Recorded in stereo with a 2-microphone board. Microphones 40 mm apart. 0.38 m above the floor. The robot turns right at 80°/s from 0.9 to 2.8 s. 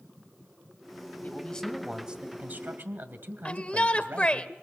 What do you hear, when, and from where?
1.2 s a man speaking: 135° left, 1.8 m; by 4.5 s 100° right, 1.8 m
3.5 s a shout: 30° left (ahead or behind), 1.2 m